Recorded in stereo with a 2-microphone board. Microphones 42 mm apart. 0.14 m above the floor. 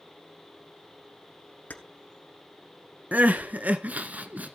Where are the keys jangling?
40° left (ahead or behind), 1.3 m.